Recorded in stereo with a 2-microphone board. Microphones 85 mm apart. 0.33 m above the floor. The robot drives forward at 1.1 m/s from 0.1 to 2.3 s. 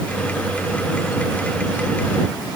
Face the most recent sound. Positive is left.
No sound to turn to.